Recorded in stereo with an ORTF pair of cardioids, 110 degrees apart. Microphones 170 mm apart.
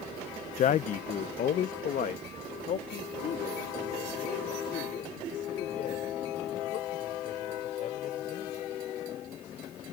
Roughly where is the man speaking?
Ahead left.